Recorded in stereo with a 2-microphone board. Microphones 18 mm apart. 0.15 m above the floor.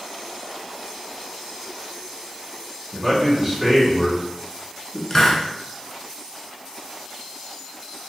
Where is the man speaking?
25° right (ahead or behind), 1.4 m.